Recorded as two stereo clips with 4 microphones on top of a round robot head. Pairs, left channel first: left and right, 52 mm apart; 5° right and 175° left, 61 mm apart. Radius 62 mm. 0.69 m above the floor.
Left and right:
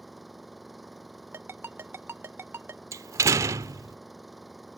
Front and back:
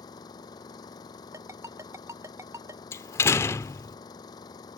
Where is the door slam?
55° right.